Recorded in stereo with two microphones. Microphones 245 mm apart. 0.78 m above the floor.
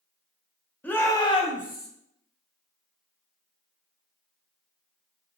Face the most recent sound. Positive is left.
turn(degrees=45)  # may be behind; listen again after turning